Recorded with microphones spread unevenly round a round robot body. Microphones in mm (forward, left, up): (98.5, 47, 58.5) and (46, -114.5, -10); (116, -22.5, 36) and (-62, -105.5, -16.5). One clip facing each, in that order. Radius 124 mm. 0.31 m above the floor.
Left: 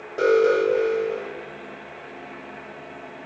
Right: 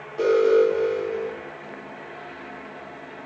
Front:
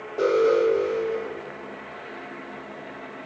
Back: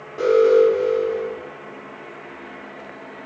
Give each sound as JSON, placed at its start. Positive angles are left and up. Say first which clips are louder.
{"t": 0.2, "sound": "an alarm", "louder": "right 1 dB, back 6 dB", "azimuth_deg": 125, "distance_m": 1.4}